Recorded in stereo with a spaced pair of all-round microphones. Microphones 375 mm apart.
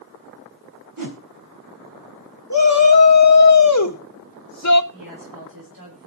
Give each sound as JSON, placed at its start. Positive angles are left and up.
{"t": 1.0, "sound": "a whoosh", "side_deg": -60, "distance_m": 3.0}
{"t": 2.5, "sound": "a shout", "side_deg": 55, "distance_m": 1.2}
{"t": 4.9, "sound": "a woman speaking", "side_deg": -60, "distance_m": 7.5}